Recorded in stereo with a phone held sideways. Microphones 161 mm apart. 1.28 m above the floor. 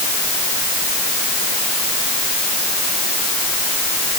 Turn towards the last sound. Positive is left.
No sound to turn to.